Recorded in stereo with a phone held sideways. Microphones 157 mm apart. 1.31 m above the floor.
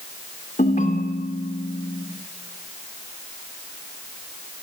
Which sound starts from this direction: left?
A ringtone, at 0.6 s.